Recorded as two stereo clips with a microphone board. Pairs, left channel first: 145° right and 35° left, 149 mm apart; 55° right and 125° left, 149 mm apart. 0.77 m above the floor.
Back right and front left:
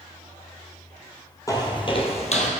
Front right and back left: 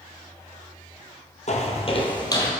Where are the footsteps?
80° right, 1.5 m; by 2.5 s 120° right, 1.5 m.